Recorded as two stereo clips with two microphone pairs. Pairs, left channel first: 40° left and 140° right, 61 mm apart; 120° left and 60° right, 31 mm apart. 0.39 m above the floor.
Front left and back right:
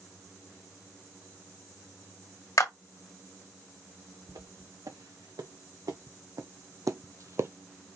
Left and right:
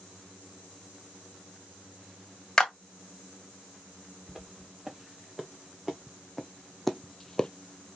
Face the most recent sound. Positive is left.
turn(degrees=180)